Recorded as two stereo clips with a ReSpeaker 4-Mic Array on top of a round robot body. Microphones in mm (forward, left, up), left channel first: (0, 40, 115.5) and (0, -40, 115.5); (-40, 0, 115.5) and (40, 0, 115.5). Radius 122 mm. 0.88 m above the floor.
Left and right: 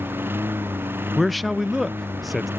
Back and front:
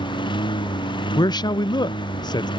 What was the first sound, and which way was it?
A lawn mower, 155° right.